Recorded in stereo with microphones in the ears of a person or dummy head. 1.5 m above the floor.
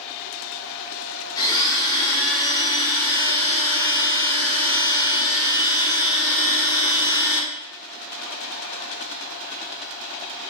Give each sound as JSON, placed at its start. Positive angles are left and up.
{"t": 1.4, "sound": "a blender", "side_deg": 15, "distance_m": 1.3}